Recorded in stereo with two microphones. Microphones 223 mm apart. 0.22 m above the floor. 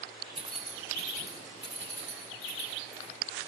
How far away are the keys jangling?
About 0.9 m.